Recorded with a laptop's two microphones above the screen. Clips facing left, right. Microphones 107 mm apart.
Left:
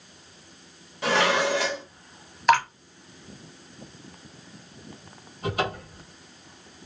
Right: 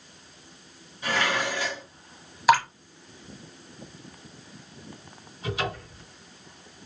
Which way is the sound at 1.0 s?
80° left.